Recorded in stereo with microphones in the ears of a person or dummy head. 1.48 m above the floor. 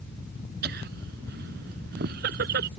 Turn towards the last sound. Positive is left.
turn(degrees=-60)  # may be behind; listen again after turning